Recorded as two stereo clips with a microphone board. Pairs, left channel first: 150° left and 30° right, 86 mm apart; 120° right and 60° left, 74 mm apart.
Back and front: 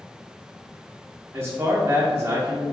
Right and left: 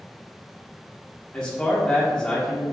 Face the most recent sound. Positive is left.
turn(degrees=-55)